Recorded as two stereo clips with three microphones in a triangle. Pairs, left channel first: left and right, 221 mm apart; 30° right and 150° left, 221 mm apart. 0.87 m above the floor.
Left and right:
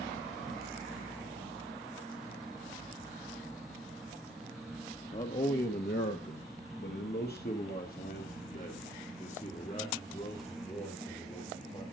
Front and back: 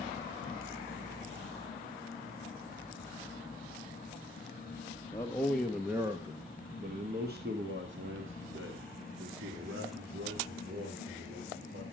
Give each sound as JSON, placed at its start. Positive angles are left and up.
{"t": 5.1, "sound": "a man speaking", "azimuth_deg": 40, "distance_m": 1.4}